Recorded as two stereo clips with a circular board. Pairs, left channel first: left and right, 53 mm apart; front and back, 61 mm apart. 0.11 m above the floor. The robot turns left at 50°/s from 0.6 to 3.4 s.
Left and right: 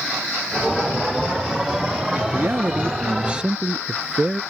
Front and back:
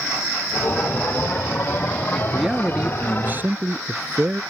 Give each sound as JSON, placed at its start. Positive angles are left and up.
{"t": 2.1, "sound": "a man speaking", "azimuth_deg": -90}